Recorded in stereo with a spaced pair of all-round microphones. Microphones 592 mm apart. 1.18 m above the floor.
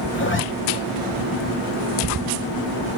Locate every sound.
0.1 s a zipper: 20° left (ahead or behind), 0.7 m